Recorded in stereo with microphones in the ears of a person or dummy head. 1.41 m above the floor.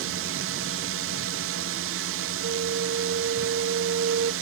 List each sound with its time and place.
0.0 s a drone: 65° right (ahead or behind)
2.4 s a flute: 60° right (ahead or behind)